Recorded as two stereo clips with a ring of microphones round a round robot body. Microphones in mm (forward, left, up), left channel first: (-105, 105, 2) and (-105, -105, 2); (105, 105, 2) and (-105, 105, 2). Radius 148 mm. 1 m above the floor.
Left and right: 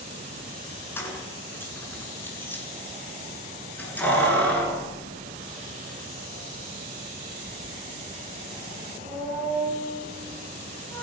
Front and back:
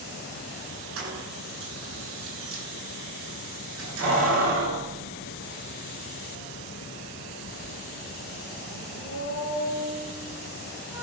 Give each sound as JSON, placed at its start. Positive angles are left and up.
{"t": 1.0, "sound": "keys jangling", "azimuth_deg": 170, "distance_m": 8.5}